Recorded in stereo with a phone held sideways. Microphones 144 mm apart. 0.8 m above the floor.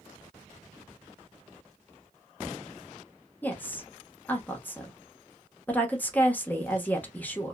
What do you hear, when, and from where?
3.4 s a woman speaking: 10° left (ahead or behind), 0.8 m